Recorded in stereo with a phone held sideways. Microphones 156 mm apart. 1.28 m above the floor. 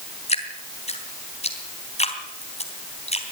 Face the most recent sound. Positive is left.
turn(degrees=45)  # may be behind; listen again after turning